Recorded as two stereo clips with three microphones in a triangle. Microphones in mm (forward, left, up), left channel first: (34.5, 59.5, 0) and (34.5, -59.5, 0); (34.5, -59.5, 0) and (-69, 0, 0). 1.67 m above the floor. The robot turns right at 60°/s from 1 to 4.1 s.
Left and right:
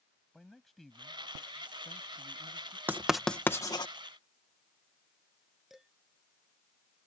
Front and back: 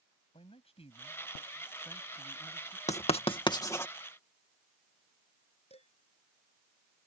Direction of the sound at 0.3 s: Straight ahead.